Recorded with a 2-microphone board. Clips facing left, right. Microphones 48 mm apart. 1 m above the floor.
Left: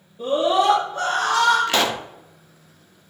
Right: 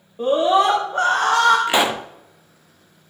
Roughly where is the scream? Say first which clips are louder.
Right 3 dB; right.